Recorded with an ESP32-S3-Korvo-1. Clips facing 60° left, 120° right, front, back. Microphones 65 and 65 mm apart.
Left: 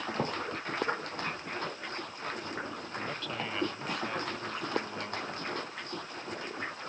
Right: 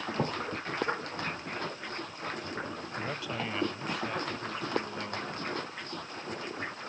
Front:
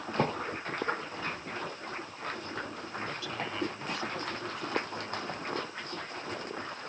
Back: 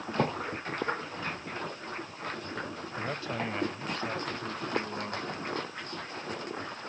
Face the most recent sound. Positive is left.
turn(degrees=140)